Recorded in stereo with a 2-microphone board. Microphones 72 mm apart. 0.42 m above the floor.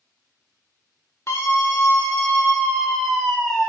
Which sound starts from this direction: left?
A scream, at 1.3 s.